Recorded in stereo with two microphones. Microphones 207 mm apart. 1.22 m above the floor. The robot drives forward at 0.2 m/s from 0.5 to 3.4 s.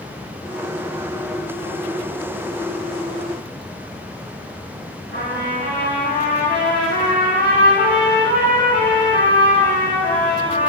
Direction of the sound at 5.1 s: 50° left (ahead or behind).